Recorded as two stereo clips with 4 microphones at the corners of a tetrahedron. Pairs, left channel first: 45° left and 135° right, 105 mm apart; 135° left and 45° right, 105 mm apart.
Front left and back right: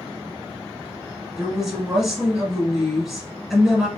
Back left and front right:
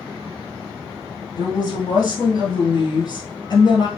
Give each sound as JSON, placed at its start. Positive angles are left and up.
{"t": 1.4, "sound": "a woman speaking", "azimuth_deg": 135, "distance_m": 1.4}